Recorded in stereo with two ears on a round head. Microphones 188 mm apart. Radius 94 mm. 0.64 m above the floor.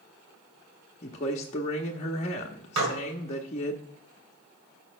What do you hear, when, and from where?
1.0 s a man speaking: 30° left (ahead or behind), 0.8 m
2.8 s dishes clattering: 80° right, 2 m